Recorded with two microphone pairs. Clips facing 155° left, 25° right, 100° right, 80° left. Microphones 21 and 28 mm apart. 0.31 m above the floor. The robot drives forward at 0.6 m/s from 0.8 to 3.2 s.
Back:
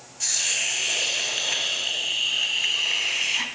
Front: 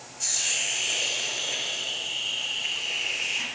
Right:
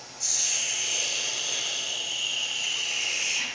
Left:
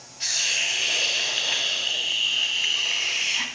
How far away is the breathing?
I don't hear breathing.